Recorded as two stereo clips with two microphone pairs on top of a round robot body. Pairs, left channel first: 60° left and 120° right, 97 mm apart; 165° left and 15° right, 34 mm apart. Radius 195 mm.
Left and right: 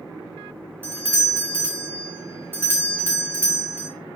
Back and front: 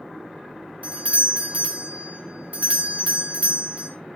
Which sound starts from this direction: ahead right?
A doorbell, at 0.8 s.